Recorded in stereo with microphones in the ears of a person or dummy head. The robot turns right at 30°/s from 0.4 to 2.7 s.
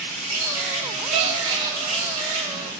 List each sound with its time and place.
0.0 s an insect: 95° right, 3 m; by 2.8 s 25° right, 3 m
1.1 s a gasp: 35° right (ahead or behind), 0.7 m; by 1.8 s 15° right (ahead or behind), 0.7 m